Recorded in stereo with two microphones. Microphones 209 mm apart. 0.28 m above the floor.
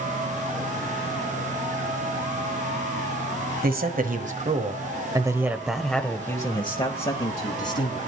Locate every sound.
3.6 s a man speaking: 45° right (ahead or behind), 1.6 m; by 8.0 s 40° left (ahead or behind), 1.9 m